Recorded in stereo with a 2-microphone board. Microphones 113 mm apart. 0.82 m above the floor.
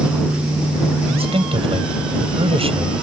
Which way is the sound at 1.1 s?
55° right (ahead or behind).